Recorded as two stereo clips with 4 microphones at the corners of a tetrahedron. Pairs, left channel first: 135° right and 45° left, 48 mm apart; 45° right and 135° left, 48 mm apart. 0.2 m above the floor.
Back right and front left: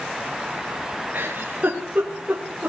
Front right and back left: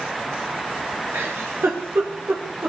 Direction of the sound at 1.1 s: 105° left.